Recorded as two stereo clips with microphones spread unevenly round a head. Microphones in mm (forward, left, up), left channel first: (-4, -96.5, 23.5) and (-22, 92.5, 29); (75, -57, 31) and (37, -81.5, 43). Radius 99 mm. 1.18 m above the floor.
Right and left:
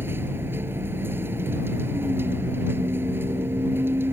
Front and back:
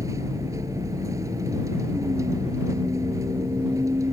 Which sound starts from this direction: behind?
A vehicle, at 0.0 s.